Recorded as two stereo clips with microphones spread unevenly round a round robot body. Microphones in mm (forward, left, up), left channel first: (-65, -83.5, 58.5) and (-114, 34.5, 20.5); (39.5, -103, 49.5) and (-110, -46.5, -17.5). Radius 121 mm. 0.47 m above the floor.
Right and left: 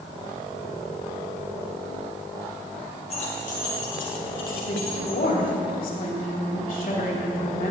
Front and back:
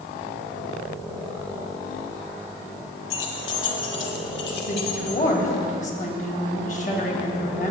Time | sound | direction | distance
3.1 | keys jangling | 5° right | 1.5 m
4.7 | a woman speaking | 70° right | 3 m